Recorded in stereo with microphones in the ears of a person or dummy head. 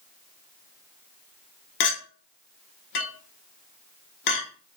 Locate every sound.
1.8 s a clink: 60° left (ahead or behind), 0.7 m